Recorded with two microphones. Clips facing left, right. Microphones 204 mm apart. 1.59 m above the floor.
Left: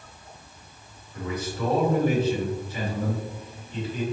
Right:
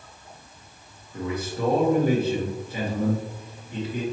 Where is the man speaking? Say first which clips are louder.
Right 2 dB; 55° right (ahead or behind), 1.3 m.